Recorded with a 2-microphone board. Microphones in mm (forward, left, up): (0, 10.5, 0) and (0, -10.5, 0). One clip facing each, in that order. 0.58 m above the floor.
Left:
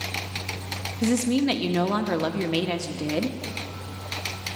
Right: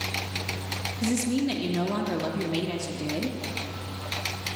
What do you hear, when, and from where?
1.0 s a woman speaking: 35° left (ahead or behind), 0.7 m